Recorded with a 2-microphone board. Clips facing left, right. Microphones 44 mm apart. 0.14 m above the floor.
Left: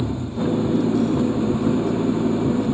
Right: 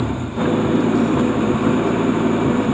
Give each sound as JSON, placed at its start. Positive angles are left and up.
{"t": 0.0, "sound": "an engine running", "side_deg": -55}